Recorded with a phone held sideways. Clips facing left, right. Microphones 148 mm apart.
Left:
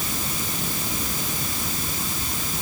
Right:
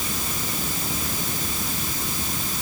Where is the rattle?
I don't hear a rattle.